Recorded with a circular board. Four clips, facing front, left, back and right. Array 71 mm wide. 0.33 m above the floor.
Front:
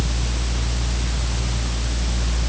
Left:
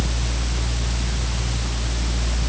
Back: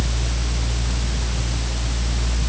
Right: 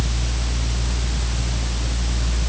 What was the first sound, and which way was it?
Only background noise.